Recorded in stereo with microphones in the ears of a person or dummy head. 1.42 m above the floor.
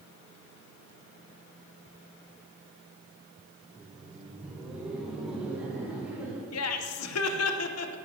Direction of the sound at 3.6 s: Centre (ahead or behind).